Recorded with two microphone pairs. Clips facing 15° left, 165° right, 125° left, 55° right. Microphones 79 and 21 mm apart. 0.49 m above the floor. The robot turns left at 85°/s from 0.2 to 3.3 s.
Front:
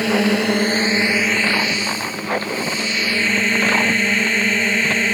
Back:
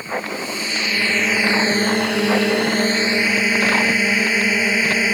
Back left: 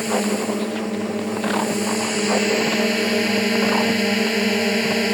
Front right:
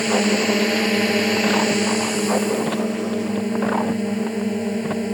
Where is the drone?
15° left; by 5.2 s 110° left.